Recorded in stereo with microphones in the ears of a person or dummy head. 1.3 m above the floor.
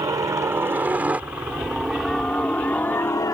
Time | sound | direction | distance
0.0 | a helicopter | 20° right (ahead or behind) | ?